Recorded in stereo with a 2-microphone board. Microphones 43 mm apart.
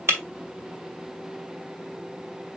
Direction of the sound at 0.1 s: 65° right (ahead or behind).